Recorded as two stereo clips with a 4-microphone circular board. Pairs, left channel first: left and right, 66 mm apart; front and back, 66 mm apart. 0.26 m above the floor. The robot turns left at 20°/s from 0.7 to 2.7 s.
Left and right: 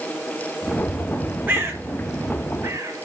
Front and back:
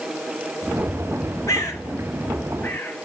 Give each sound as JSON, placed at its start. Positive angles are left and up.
{"t": 1.5, "sound": "a bird", "azimuth_deg": -30, "distance_m": 4.0}